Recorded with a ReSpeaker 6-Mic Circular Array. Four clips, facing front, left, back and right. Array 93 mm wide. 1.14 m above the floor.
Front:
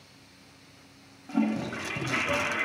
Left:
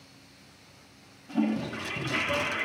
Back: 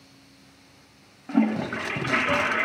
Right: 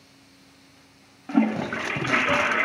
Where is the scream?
No scream in this recording.